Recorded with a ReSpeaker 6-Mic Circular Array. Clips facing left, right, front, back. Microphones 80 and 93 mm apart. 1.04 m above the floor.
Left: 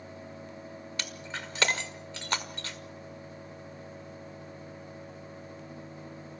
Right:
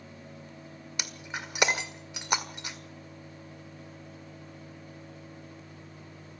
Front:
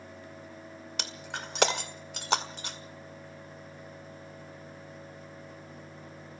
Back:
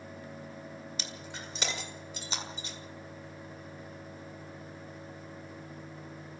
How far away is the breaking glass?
About 1.7 m.